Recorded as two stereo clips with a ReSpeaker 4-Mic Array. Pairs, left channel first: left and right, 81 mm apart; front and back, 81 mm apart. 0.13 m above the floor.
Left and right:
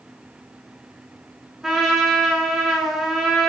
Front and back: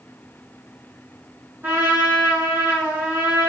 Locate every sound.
1.6 s a trumpet: 175° right, 1.4 m